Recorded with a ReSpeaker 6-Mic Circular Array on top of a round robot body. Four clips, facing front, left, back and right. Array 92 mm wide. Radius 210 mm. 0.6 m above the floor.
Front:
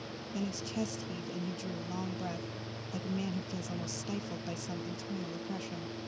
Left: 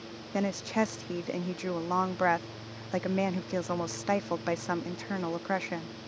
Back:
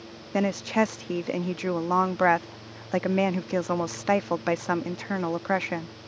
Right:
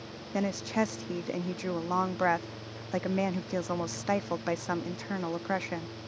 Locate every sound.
0.3 s a woman speaking: straight behind